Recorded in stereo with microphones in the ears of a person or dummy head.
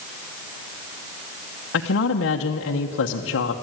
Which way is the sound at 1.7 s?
70° left (ahead or behind).